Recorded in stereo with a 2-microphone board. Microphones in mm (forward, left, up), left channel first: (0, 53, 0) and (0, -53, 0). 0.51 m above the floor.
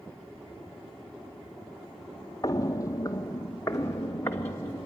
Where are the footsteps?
30° left (ahead or behind), 0.5 m; by 4.9 s 25° left (ahead or behind), 1.9 m.